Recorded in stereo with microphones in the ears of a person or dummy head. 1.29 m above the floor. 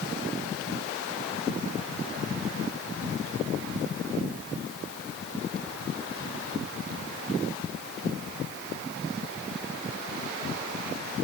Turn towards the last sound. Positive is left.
No sound to turn to.